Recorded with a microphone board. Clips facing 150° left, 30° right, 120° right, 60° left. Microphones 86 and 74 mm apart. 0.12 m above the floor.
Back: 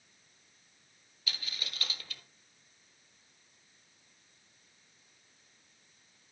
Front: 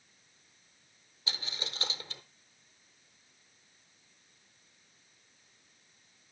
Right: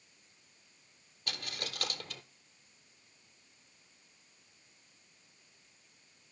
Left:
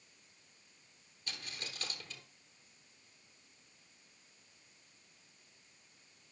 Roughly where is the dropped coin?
Right.